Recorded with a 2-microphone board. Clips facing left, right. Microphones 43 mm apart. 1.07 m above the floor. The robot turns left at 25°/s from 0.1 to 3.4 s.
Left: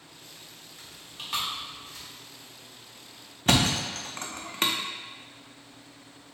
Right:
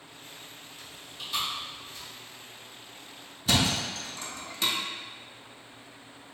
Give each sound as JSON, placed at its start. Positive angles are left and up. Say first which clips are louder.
{"t": 0.8, "sound": "chewing", "louder": "even", "side_deg": 55, "distance_m": 1.6}
{"t": 3.5, "sound": "a thud", "louder": "left 2 dB", "side_deg": 45, "distance_m": 0.7}